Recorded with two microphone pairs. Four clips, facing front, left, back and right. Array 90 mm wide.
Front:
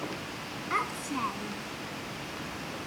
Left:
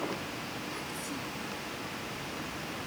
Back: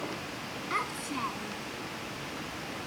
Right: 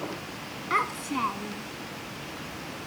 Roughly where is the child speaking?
Right.